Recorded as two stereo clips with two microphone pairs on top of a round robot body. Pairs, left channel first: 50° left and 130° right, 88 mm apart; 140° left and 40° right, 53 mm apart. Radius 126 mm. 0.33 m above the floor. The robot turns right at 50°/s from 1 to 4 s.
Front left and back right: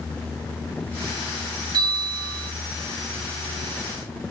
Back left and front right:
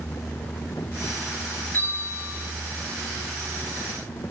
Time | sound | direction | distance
1.7 | a bell | 170° right | 1.8 m